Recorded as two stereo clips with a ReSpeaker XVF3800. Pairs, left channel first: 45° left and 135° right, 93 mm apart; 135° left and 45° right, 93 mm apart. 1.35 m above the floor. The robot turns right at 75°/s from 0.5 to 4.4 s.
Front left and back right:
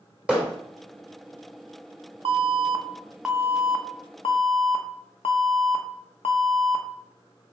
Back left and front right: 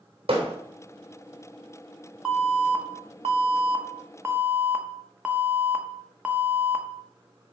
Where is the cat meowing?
No cat meowing in this recording.